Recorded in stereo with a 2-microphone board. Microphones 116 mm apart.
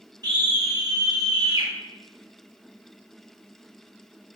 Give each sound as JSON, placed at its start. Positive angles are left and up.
{"t": 0.2, "sound": "a scream", "side_deg": -40, "distance_m": 3.5}